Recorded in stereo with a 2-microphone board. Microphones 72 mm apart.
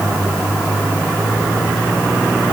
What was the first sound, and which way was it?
Only background noise.